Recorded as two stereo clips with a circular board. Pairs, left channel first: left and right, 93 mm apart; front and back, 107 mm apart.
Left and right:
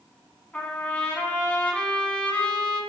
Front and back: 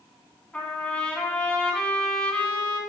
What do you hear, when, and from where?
0.5 s a trumpet: 50° left, 1.5 m